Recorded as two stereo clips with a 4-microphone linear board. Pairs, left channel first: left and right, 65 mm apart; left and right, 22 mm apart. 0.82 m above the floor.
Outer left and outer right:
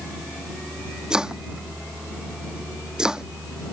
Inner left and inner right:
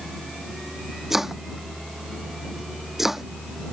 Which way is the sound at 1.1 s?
10° right (ahead or behind).